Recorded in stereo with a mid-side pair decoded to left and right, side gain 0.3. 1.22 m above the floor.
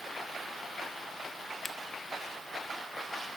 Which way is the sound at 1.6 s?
40° left.